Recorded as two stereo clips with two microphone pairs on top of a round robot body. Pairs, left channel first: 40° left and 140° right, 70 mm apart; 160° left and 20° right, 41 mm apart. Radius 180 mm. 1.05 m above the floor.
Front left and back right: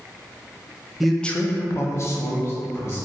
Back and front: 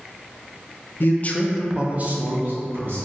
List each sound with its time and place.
1.0 s a man speaking: 135° left, 0.5 m; by 3.1 s 10° right, 1.3 m